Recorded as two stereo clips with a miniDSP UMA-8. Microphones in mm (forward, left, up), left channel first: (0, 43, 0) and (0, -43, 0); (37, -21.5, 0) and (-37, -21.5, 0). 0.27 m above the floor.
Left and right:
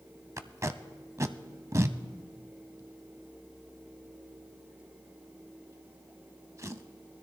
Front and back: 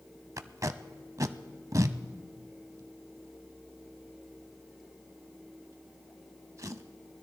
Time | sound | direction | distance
0.4 | tape being pulled | 140° right | 0.5 m